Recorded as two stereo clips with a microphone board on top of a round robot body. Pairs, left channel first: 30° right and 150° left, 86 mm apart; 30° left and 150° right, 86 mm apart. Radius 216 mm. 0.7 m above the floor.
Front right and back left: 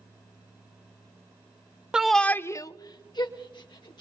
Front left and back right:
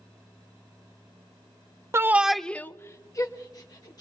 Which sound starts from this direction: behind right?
A shout, at 1.9 s.